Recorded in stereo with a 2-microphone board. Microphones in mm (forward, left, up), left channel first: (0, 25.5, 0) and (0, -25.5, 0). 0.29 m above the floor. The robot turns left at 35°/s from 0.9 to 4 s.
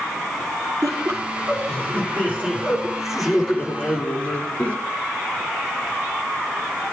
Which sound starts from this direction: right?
Laughter, at 0.8 s.